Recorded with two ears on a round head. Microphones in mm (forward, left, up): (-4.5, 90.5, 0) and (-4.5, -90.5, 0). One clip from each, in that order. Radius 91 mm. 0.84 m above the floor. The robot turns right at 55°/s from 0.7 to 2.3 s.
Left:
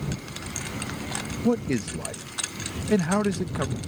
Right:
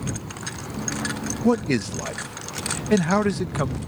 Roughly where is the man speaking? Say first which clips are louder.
Right 4 dB; right.